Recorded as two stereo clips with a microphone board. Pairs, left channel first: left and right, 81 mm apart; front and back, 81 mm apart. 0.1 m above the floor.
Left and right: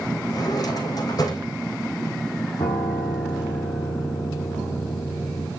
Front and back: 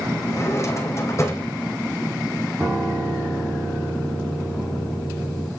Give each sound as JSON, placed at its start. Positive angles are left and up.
{"t": 0.3, "sound": "a drawer", "azimuth_deg": 55, "distance_m": 2.5}
{"t": 2.6, "sound": "a piano", "azimuth_deg": 115, "distance_m": 3.5}